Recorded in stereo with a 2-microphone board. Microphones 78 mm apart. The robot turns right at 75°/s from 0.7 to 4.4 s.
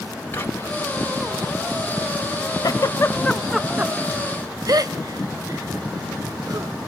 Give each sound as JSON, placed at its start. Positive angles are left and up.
{"t": 0.3, "sound": "whispering", "side_deg": 30, "distance_m": 1.6}
{"t": 2.6, "sound": "a giggle", "side_deg": 55, "distance_m": 0.6}